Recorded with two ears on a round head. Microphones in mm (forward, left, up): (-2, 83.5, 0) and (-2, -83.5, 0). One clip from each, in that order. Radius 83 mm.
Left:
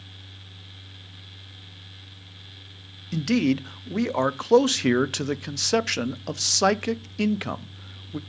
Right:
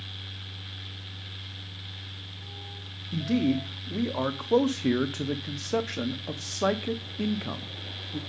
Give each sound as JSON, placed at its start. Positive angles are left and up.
{"t": 3.1, "sound": "a man speaking", "side_deg": 85, "distance_m": 0.5}